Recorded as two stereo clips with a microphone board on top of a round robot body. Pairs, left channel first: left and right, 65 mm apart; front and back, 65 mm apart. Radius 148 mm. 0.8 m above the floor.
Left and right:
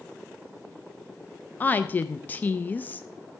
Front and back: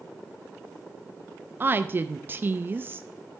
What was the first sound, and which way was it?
A woman speaking, 140° left.